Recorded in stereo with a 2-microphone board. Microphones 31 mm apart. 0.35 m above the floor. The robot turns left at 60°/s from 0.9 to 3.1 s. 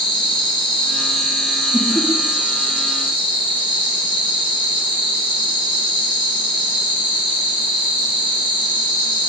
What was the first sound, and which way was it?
An insect, 35° left.